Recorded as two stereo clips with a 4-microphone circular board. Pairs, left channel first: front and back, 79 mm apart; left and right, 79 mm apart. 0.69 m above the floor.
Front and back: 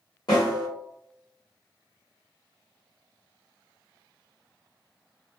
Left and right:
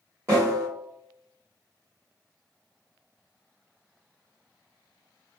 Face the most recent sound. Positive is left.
turn(degrees=-35)